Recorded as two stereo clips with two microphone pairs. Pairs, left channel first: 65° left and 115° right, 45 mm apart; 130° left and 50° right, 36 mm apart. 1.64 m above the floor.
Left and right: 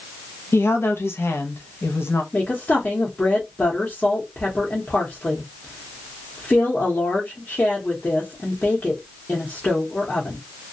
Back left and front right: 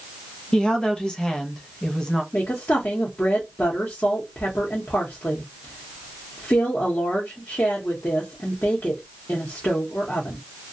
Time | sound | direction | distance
0.5 | a woman speaking | 70° left | 0.7 m
2.3 | a woman speaking | 120° left | 0.8 m